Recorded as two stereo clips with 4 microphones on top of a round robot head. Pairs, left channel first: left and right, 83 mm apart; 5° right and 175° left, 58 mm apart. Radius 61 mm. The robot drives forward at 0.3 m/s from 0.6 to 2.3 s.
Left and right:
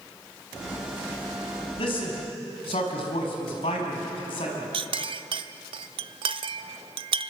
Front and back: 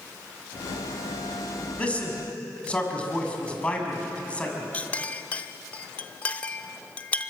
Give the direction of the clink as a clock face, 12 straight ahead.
3 o'clock.